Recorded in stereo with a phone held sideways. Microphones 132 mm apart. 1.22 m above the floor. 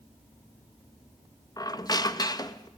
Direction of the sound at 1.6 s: 30° left (ahead or behind).